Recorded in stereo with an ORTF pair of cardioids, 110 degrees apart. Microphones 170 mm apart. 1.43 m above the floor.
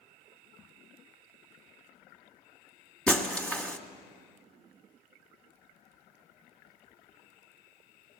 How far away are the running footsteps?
I don't hear running footsteps.